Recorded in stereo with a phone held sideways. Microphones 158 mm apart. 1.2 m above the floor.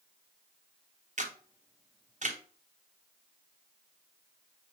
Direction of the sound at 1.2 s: 50° right (ahead or behind).